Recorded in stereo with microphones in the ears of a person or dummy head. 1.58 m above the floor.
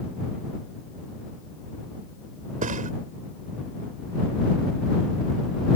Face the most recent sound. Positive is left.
turn(degrees=-40)  # may be behind; listen again after turning